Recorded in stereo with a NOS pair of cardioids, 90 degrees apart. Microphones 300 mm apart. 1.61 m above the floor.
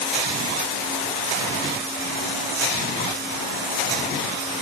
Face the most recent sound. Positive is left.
No sound to turn to.